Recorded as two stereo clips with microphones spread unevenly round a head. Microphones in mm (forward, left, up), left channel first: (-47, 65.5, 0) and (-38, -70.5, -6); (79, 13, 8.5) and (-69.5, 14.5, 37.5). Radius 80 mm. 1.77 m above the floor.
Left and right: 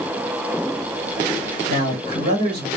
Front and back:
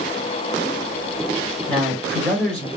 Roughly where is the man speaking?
Right.